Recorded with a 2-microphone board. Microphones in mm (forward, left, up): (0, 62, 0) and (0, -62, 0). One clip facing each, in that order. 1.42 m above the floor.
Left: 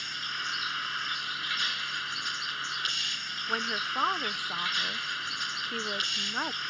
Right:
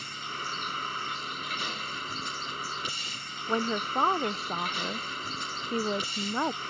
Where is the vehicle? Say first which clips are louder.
Right 2 dB; 40° right (ahead or behind).